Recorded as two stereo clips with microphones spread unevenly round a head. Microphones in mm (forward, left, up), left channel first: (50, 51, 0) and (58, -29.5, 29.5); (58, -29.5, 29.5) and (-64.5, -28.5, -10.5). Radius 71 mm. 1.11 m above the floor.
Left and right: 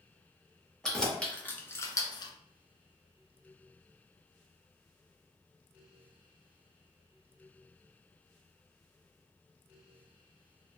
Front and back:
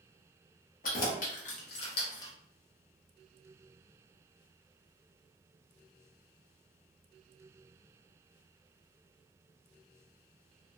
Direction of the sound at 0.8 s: 5° left.